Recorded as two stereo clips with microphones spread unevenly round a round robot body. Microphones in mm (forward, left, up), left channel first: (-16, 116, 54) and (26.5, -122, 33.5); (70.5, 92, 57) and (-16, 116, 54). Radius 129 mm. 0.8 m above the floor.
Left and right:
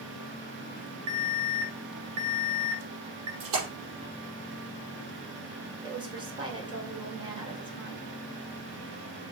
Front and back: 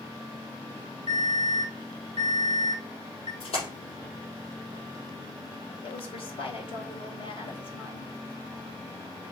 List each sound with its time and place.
1.1 s an alarm: 65° right, 2.5 m
3.4 s a splash: 45° right, 5 m
5.8 s a woman speaking: 10° right, 2.5 m